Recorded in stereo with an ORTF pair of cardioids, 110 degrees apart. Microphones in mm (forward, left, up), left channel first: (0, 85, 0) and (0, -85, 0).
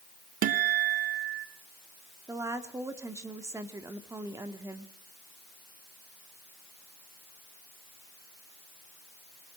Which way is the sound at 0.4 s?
55° right.